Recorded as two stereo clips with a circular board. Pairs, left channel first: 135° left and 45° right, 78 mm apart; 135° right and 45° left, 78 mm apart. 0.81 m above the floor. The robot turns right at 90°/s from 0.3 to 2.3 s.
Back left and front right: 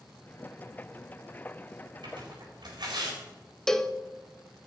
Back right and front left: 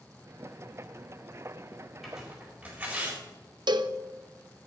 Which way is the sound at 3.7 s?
50° left.